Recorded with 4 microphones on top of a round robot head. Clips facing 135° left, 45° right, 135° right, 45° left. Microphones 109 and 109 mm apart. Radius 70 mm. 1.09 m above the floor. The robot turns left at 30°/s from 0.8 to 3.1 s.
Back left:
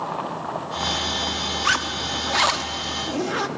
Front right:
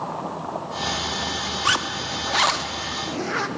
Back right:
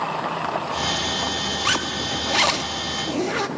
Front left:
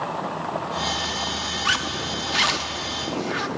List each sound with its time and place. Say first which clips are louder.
1.6 s a zipper: even, front left 1 dB; 110° right, 0.7 m; by 3.5 s 155° right, 0.7 m